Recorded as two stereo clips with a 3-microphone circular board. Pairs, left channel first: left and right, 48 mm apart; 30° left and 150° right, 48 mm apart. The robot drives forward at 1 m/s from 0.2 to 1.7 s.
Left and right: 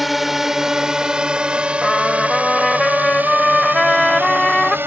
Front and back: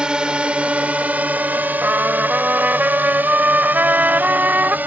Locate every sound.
0.0 s a drone: 175° right; by 4.9 s 110° right
1.8 s a trumpet: 165° left